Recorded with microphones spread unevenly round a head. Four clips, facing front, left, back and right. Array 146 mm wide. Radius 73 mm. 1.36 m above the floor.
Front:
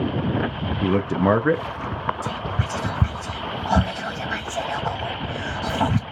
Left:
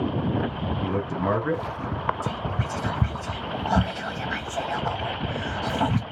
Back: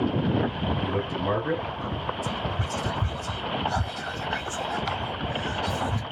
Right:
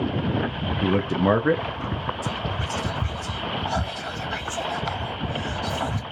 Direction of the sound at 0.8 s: 40° right.